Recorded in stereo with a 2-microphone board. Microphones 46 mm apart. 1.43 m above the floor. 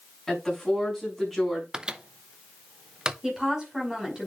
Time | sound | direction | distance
0.3 | a woman speaking | 5° left (ahead or behind) | 7 m
1.7 | a microwave | 20° right (ahead or behind) | 0.5 m
3.2 | a woman speaking | 15° right (ahead or behind) | 5.5 m